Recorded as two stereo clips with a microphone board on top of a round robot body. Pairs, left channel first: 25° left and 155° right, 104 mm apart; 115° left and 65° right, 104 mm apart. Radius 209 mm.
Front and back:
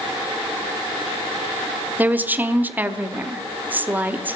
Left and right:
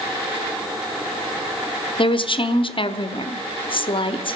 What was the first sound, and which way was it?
A woman speaking, 130° left.